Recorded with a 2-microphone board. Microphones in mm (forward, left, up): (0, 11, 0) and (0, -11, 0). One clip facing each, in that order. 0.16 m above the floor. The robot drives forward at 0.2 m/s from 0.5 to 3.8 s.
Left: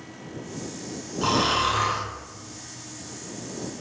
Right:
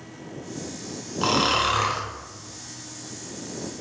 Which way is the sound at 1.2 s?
20° right (ahead or behind).